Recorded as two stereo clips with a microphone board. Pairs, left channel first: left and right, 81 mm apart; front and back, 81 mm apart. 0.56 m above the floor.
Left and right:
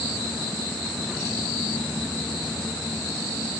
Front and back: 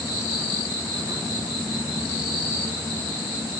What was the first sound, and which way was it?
Only background noise.